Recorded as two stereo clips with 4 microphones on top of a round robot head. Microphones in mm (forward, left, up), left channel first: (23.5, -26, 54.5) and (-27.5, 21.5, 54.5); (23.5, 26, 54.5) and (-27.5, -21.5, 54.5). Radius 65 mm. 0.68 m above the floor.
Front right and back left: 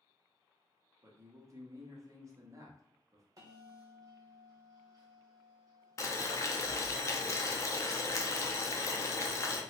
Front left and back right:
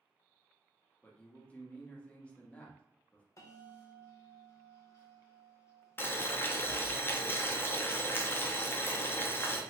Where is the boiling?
10° right, 0.6 m.